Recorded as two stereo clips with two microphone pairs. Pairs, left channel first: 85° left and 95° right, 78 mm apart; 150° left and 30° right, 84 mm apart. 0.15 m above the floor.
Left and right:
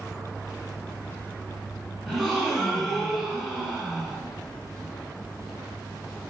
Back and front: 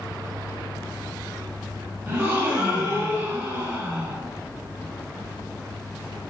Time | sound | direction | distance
2.1 | a gasp | 5° right | 0.7 m